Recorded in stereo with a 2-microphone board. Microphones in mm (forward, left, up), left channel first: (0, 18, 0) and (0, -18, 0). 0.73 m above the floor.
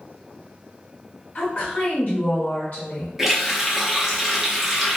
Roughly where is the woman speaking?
Left.